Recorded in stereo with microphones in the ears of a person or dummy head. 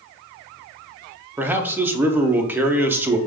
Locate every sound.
1.4 s a man speaking: 10° right (ahead or behind), 0.7 m